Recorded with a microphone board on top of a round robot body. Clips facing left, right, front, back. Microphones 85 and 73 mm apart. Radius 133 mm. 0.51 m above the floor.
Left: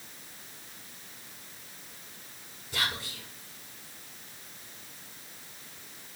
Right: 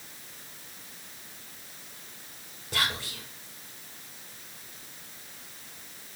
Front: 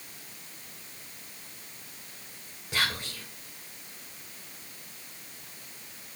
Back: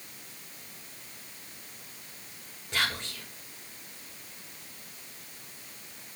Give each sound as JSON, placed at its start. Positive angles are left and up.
{"t": 2.7, "sound": "whispering", "azimuth_deg": -75, "distance_m": 3.5}